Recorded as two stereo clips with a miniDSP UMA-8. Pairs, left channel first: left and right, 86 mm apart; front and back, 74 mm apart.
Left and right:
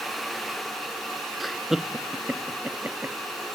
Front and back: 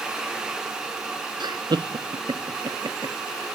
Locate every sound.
1.4 s laughter: straight behind; by 3.1 s 155° right